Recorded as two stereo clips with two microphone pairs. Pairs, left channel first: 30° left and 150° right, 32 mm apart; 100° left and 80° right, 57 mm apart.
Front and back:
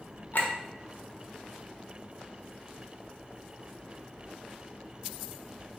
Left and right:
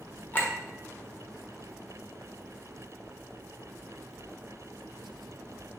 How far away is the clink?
About 0.8 m.